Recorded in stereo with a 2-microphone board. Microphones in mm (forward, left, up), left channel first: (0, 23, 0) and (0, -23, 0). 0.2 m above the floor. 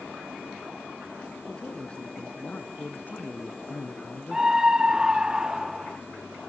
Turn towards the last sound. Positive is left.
turn(degrees=-15)  # may be behind; listen again after turning